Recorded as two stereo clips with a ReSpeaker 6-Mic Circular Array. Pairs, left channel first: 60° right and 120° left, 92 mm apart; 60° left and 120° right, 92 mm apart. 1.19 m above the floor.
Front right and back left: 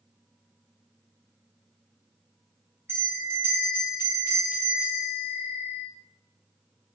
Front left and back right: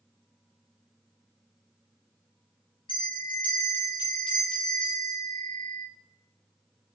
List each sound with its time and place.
2.9 s a bell: 55° left, 0.6 m